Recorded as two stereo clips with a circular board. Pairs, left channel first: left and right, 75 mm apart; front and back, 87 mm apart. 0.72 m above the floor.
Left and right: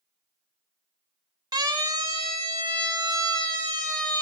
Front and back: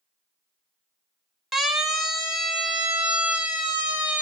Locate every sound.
1.5 s a siren: 90° right, 3 m; by 4.2 s 110° right, 4 m